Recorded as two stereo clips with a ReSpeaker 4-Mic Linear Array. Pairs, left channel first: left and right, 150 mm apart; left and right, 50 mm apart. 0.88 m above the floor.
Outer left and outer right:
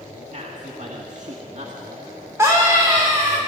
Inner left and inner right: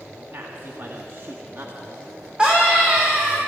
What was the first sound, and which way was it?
A man speaking, 55° right (ahead or behind).